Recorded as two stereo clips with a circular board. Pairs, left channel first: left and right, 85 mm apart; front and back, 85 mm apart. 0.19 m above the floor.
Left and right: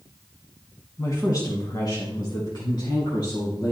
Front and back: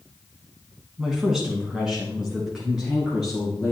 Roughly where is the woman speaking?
Left.